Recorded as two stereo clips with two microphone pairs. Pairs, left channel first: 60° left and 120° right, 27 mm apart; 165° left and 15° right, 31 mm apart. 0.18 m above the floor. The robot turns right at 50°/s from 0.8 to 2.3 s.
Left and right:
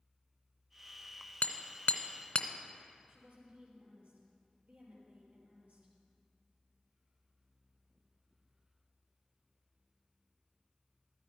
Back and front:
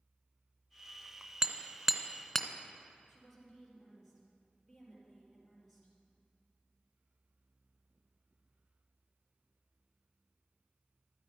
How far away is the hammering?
About 0.9 m.